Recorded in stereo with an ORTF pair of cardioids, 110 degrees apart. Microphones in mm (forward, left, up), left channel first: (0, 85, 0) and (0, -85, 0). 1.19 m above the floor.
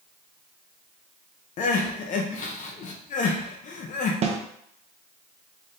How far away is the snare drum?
About 0.7 m.